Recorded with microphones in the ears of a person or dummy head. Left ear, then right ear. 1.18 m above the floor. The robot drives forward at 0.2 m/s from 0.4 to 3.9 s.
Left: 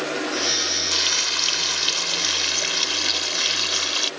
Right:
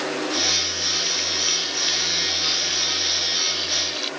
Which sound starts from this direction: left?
Frying, at 0.9 s.